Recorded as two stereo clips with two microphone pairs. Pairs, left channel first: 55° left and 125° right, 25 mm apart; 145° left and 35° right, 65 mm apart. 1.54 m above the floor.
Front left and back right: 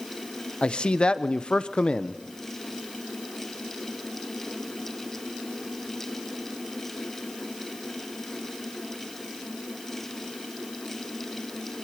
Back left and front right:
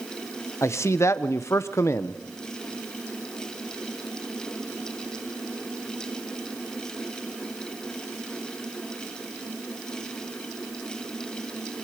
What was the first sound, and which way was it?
A man speaking, 100° left.